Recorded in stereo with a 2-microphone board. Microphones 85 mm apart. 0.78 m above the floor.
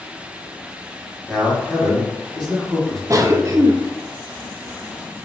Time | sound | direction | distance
1.3 | a man speaking | centre (ahead or behind) | 1.5 m
3.1 | a cough | 40° right (ahead or behind) | 0.6 m